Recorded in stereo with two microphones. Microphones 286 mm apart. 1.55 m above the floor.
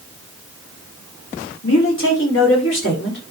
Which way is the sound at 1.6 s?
50° left (ahead or behind).